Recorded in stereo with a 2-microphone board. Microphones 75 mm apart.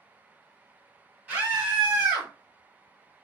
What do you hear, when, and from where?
1.3 s a scream: 20° right (ahead or behind), 1.5 m